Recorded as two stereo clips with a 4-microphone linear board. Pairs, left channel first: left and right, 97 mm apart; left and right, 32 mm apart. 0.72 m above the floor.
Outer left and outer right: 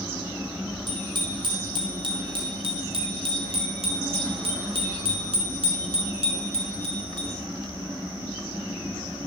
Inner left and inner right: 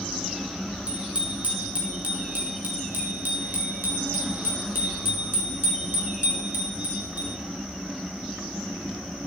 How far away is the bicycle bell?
About 6.5 m.